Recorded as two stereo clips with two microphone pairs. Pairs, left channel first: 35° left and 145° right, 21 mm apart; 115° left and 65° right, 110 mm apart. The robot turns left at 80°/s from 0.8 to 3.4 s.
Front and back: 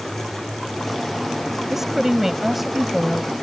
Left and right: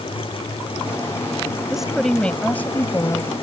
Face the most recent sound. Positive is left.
turn(degrees=85)